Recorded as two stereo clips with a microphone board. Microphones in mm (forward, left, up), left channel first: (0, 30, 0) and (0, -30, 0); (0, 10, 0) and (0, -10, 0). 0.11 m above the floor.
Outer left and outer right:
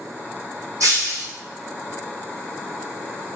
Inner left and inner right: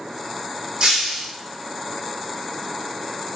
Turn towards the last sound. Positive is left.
turn(degrees=-60)  # may be behind; listen again after turning